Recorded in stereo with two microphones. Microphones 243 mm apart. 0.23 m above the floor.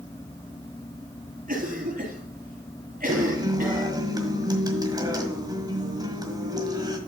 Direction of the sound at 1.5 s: 35° right (ahead or behind).